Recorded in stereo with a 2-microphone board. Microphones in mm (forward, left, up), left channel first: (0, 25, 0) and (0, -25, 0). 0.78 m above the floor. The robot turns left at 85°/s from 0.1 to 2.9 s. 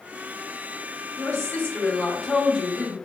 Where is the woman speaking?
95° left, 1.5 m; by 3.0 s 50° right, 1.5 m.